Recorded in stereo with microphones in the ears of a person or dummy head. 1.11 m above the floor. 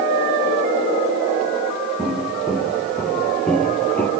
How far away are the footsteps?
About 5 m.